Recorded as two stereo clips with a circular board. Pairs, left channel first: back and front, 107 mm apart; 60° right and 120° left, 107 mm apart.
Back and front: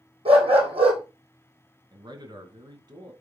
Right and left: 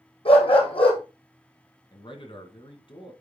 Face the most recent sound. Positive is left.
turn(degrees=-40)